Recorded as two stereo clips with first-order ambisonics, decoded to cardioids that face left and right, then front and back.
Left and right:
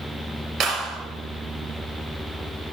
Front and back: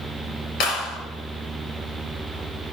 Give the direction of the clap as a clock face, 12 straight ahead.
1 o'clock.